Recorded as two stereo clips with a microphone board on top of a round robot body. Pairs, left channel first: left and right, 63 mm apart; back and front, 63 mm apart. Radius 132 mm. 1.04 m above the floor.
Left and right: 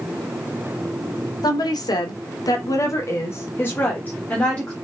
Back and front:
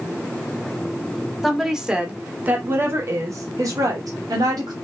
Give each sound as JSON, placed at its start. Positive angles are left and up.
{"t": 1.4, "sound": "a woman speaking", "azimuth_deg": 90, "distance_m": 1.2}